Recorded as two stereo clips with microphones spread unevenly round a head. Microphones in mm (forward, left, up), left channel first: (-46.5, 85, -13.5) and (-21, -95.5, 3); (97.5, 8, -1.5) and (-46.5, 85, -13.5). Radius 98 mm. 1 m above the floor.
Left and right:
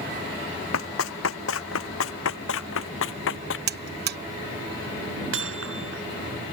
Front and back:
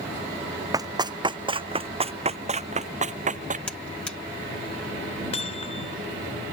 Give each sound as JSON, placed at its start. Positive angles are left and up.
{"t": 0.7, "sound": "running footsteps", "azimuth_deg": 85}
{"t": 3.7, "sound": "a buzzer", "azimuth_deg": -115}
{"t": 5.3, "sound": "hammering", "azimuth_deg": -90}